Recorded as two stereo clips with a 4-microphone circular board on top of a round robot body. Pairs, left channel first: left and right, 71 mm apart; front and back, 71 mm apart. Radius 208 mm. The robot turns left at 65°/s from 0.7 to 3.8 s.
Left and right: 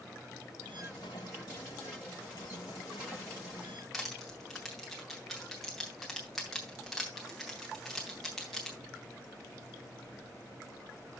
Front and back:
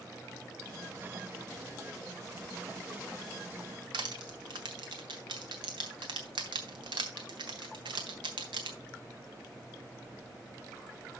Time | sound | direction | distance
3.9 | crushing | straight behind | 0.8 m